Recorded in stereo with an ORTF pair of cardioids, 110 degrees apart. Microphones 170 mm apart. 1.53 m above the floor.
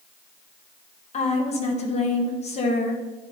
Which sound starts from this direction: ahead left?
A woman speaking, at 1.1 s.